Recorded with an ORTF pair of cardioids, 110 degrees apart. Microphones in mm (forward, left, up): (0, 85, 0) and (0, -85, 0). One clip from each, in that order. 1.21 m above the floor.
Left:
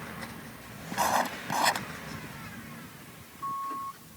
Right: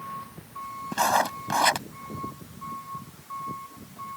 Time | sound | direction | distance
0.9 | writing | 20° right | ?